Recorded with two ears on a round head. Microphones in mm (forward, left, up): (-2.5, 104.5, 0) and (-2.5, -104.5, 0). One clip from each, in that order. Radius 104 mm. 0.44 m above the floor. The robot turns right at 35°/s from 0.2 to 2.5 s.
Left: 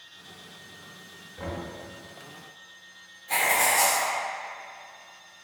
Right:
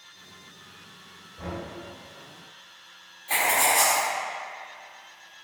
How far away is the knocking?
About 1.1 m.